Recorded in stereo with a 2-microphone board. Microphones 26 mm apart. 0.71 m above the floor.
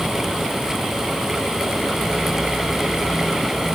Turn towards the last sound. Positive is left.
No sound to turn to.